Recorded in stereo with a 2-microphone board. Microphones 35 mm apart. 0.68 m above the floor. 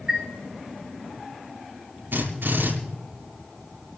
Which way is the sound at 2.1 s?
85° right.